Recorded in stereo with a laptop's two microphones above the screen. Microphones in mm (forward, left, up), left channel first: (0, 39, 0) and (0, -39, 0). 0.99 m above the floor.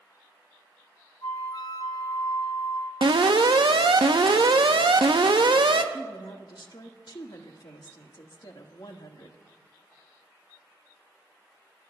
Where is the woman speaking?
70° left (ahead or behind), 1.5 m.